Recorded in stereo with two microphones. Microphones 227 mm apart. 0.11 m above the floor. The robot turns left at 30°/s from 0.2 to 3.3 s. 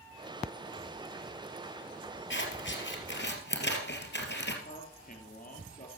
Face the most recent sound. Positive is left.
turn(degrees=40)  # may be behind; listen again after turning